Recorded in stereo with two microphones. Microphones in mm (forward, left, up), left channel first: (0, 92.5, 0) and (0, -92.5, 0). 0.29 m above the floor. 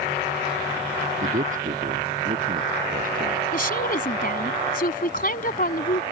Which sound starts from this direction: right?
A man speaking, at 1.2 s.